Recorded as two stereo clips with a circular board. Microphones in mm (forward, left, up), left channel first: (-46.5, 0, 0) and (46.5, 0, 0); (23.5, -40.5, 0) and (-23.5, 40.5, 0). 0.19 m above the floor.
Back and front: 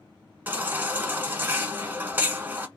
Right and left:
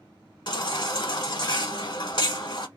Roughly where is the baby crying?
Ahead right.